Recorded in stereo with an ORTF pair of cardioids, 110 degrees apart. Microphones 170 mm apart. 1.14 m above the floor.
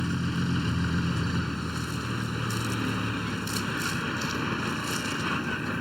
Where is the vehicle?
Straight ahead.